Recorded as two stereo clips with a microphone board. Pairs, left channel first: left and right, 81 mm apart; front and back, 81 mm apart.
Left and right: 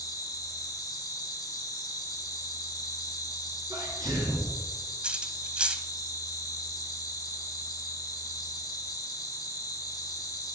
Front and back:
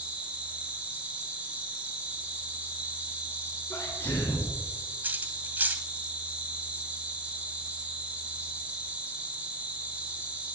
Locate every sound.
0.0 s an insect: 110° left, 1.5 m
3.7 s a sneeze: 60° right, 3 m
5.0 s cutlery clinking: 150° right, 0.7 m